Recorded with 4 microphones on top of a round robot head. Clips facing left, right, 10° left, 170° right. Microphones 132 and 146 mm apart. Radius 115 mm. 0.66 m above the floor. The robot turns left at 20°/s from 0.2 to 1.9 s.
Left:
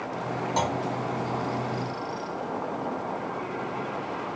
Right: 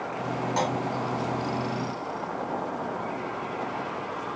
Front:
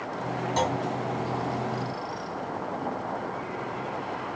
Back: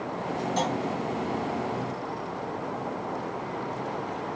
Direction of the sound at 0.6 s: 25° left.